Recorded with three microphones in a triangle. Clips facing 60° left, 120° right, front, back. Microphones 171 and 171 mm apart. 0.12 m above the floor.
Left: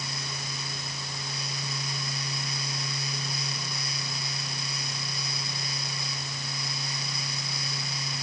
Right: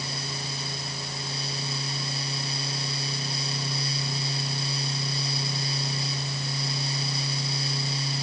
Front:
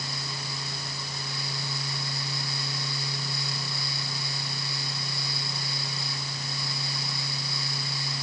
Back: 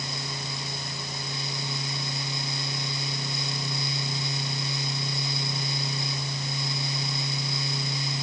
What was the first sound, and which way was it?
Only background noise.